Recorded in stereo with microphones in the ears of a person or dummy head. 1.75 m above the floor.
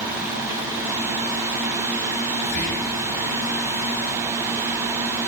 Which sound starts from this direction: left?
Whispering, at 2.4 s.